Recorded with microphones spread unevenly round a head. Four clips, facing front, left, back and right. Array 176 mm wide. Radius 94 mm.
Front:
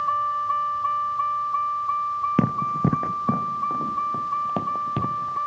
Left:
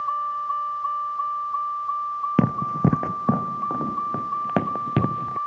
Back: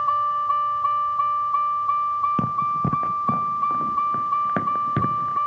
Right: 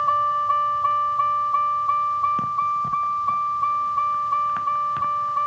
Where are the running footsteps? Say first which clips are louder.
Left 1 dB, even; 55° left; by 5.4 s 100° left.